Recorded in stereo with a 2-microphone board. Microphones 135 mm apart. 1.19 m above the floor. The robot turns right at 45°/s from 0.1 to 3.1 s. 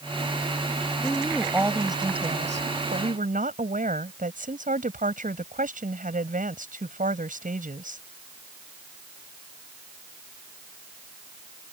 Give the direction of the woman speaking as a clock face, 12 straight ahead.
6 o'clock.